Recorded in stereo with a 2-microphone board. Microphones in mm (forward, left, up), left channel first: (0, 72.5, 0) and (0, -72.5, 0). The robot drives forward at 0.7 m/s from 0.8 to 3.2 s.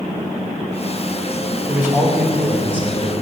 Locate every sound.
1.7 s a man speaking: 20° right (ahead or behind), 2.5 m; by 3.1 s 15° right (ahead or behind), 3.5 m